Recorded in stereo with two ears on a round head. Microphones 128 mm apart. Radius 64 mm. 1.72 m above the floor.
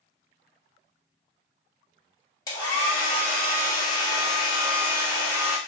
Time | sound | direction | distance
2.5 | a hair dryer | 25° left (ahead or behind) | 1.0 m